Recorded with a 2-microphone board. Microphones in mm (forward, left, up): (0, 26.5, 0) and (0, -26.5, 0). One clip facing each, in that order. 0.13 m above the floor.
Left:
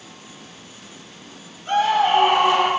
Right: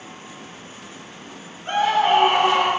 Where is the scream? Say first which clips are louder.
Even; 30° right (ahead or behind), 1.9 m; by 2.7 s 55° right (ahead or behind), 2.5 m.